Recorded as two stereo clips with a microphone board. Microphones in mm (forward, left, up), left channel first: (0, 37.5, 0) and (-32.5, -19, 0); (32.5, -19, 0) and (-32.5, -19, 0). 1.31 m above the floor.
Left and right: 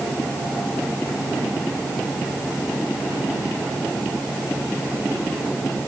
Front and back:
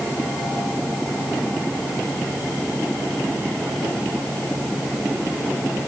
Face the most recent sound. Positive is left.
No sound to turn to.